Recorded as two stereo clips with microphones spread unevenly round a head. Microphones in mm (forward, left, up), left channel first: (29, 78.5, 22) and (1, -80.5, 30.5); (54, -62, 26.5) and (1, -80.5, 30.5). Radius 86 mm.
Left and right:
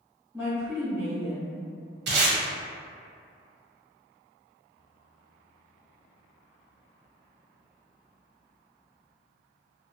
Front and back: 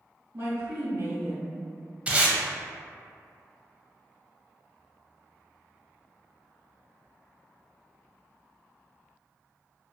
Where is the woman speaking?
175° right, 0.9 m.